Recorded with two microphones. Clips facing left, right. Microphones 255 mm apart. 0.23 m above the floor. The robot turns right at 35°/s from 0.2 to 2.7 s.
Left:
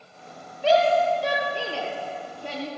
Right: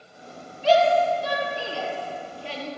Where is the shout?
65° left (ahead or behind), 6 m; by 2.7 s 40° left (ahead or behind), 6 m.